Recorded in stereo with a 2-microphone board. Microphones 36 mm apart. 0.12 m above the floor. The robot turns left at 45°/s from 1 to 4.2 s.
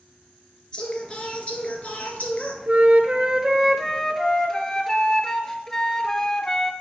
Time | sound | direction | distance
0.7 | singing | 140° left | 1.1 m
2.7 | a flute | 130° right | 0.6 m